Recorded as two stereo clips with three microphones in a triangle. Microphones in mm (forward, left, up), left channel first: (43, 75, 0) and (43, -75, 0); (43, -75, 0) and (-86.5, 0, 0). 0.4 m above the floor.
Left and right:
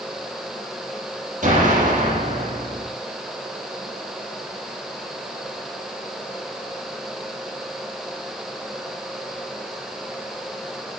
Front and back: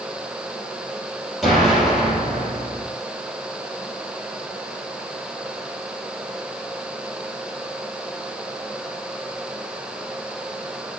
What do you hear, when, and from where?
1.4 s an explosion: 120° right, 6 m